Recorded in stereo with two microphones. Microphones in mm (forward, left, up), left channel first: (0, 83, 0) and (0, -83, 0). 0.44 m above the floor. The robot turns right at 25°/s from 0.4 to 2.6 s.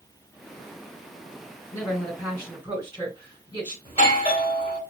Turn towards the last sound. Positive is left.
turn(degrees=35)  # may be behind; listen again after turning